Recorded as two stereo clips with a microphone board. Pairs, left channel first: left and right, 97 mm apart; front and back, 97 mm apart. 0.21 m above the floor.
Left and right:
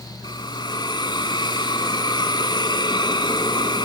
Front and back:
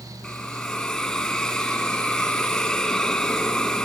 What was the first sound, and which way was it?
A hiss, 80° left.